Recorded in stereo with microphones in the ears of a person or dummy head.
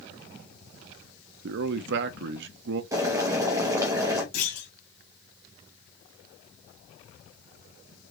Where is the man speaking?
70° right (ahead or behind), 0.5 m.